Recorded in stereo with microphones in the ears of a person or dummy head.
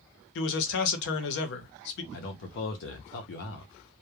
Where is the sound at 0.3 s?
65° left (ahead or behind), 0.7 m.